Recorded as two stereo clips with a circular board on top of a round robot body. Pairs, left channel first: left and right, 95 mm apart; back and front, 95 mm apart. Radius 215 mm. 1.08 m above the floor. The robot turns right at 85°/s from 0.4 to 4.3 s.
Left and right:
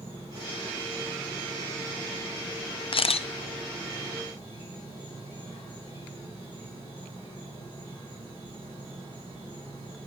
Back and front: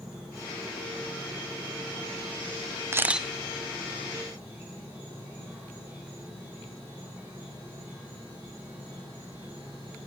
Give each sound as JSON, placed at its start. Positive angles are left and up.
{"t": 0.0, "sound": "an insect", "azimuth_deg": -35, "distance_m": 6.0}
{"t": 2.9, "sound": "a camera shutter", "azimuth_deg": 60, "distance_m": 0.5}